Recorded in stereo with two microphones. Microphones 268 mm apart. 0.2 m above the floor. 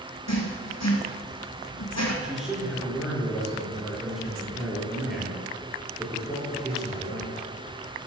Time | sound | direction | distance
0.3 | writing | 70° left (ahead or behind) | 2 m
2.2 | a man speaking | centre (ahead or behind) | 3.5 m